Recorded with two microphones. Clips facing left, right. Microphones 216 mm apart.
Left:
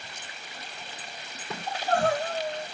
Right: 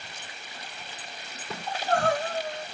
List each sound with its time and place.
1.7 s crying: 35° left (ahead or behind), 1.4 m